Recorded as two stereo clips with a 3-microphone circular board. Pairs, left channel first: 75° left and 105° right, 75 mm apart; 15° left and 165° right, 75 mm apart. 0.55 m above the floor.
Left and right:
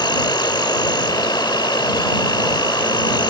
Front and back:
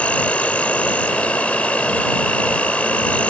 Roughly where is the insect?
Left.